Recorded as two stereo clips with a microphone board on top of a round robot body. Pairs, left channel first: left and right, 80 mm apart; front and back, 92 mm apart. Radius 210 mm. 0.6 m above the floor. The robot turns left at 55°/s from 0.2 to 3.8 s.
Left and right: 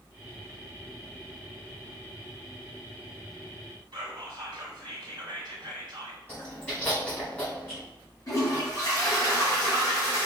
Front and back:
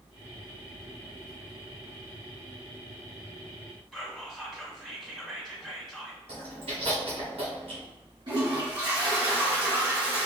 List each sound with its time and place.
3.9 s whispering: 95° right, 1.7 m
6.3 s chewing: 165° left, 1.4 m
8.3 s a toilet flushing: 145° left, 1.4 m